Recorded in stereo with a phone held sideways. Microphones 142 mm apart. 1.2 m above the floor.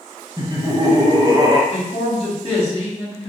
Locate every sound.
0.4 s laughter: 25° right (ahead or behind), 0.9 m
1.7 s a man speaking: 45° left (ahead or behind), 2 m